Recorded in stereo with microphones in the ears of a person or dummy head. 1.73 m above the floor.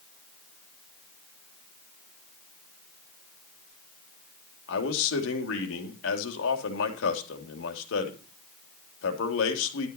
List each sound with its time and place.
4.7 s a man speaking: 75° left (ahead or behind), 3 m